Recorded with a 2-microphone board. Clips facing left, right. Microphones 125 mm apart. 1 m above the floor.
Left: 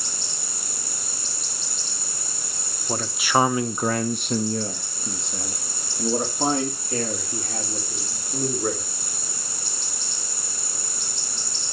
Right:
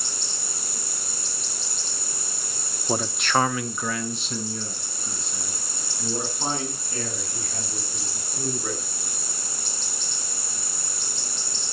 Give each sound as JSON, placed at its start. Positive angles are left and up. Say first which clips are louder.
{"t": 2.9, "sound": "a man speaking", "louder": "left 1 dB", "side_deg": -15, "distance_m": 0.7}